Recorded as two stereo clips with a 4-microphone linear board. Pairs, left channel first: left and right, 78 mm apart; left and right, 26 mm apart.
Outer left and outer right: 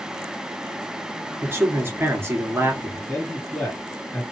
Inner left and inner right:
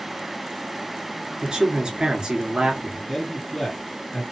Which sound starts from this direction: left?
A man speaking, at 3.1 s.